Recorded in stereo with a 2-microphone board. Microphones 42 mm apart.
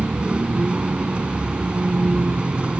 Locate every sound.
0.0 s a vehicle: 25° right (ahead or behind)